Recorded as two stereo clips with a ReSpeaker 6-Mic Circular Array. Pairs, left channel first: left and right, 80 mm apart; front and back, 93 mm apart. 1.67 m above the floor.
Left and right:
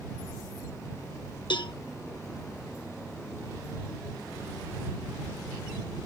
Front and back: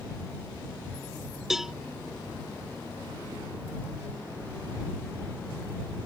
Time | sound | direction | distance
1.5 | a cowbell | 95° left | ?